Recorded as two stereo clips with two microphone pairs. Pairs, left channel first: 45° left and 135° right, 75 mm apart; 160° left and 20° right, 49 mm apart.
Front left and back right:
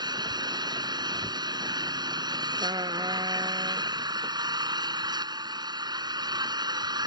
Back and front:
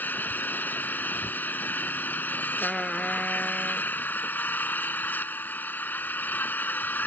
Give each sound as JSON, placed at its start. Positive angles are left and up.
{"t": 0.0, "sound": "an engine running", "azimuth_deg": -150}
{"t": 2.6, "sound": "a trumpet", "azimuth_deg": -115}